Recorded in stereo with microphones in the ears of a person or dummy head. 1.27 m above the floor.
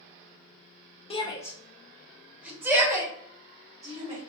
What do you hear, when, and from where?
1.1 s a shout: 30° left (ahead or behind), 0.6 m; by 4.2 s 20° right (ahead or behind), 2 m